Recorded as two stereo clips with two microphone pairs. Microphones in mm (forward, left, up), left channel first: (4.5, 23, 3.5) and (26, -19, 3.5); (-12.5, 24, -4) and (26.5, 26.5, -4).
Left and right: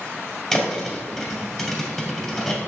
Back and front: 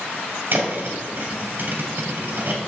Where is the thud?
40° left, 2 m.